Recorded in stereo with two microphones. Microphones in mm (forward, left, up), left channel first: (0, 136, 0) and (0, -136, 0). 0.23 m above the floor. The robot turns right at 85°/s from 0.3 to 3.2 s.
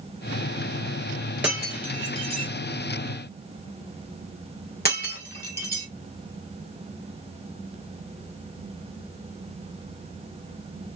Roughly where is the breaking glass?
Centre.